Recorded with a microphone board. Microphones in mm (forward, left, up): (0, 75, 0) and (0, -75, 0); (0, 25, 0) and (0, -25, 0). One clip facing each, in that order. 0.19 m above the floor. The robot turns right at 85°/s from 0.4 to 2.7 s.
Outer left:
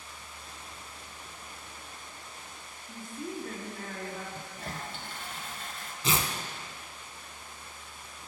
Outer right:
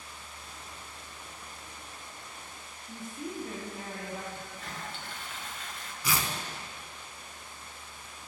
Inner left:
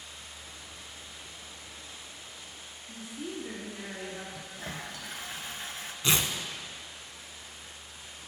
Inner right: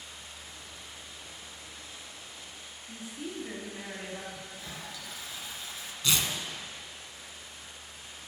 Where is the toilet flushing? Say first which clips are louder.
Outer left 2 dB, inner left 3 dB; 45° left (ahead or behind), 0.6 m.